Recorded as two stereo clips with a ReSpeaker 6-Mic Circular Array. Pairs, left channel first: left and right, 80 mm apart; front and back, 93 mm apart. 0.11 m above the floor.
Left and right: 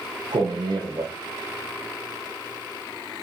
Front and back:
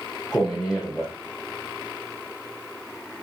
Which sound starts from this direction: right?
A man speaking, at 0.3 s.